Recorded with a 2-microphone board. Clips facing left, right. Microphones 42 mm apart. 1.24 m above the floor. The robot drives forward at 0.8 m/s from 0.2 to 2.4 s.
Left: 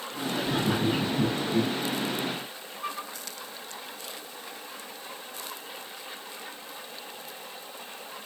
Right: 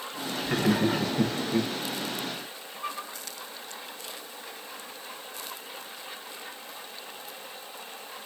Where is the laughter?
65° right (ahead or behind), 1.1 m; by 1.7 s 60° right (ahead or behind), 1.1 m.